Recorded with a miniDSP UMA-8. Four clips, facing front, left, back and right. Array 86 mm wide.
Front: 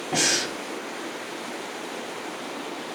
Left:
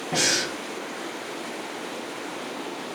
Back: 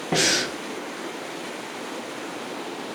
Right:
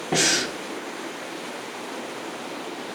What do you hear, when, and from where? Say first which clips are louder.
0.1 s breathing: right 3 dB, back 3 dB; 135° right, 0.8 m